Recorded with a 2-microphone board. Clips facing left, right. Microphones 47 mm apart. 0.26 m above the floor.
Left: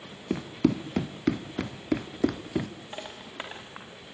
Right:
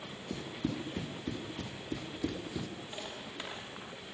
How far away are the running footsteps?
About 2 m.